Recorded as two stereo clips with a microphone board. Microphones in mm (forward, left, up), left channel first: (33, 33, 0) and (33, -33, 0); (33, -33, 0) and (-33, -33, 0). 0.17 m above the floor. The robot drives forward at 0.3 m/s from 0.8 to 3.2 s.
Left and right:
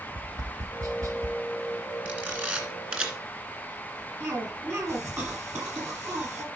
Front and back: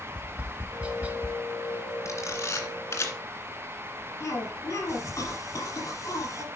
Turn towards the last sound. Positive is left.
turn(degrees=-40)